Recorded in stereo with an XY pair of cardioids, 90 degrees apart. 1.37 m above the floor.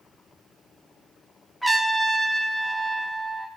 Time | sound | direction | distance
1.6 | a trumpet | straight ahead | 1.3 m